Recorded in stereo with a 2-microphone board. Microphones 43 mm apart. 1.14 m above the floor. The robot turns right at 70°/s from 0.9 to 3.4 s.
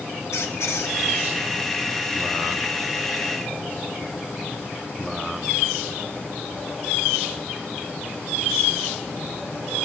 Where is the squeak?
80° left, 1.7 m; by 1.0 s 75° left (ahead or behind), 1.7 m.